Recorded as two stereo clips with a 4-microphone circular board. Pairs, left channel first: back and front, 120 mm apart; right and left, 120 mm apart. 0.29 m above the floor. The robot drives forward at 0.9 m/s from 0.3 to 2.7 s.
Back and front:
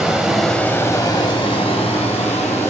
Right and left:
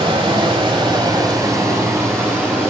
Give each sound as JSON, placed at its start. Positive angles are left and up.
{"t": 0.0, "sound": "running water", "azimuth_deg": 85, "distance_m": 1.0}